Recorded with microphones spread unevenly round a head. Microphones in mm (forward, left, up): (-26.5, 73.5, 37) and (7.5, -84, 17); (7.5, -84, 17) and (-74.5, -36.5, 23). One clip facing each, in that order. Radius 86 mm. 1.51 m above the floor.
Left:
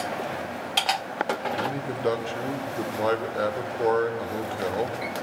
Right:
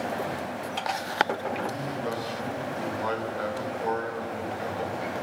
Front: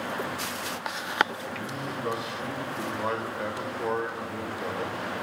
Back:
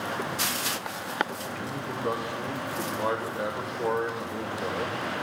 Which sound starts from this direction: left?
A man speaking, at 1.5 s.